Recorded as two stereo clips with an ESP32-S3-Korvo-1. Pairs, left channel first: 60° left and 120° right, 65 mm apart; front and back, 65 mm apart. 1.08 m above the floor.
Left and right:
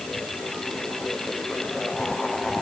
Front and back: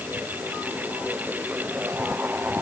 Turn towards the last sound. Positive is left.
No sound to turn to.